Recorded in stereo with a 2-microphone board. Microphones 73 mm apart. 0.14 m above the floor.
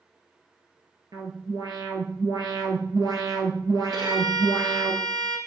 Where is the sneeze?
No sneeze in this recording.